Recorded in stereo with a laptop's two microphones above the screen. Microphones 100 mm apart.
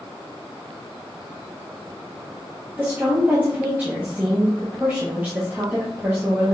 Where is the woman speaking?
20° right (ahead or behind), 0.9 m.